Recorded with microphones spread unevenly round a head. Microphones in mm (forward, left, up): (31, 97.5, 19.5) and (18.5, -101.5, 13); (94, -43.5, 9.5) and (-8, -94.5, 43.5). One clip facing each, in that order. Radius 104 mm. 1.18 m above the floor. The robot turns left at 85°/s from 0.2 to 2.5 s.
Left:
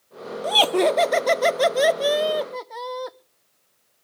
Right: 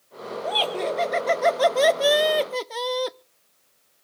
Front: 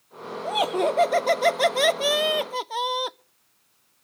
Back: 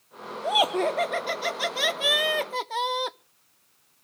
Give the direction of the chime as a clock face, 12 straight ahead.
I don't hear a chime.